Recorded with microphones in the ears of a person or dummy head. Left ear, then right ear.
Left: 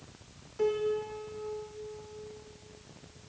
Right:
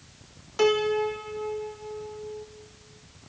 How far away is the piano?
About 0.7 m.